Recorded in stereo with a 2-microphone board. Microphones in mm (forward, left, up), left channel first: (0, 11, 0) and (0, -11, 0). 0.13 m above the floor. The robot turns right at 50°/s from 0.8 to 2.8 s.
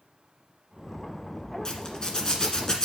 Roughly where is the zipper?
Ahead left.